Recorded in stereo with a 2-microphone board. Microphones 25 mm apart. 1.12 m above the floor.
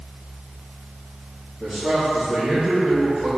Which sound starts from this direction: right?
A man speaking, at 1.6 s.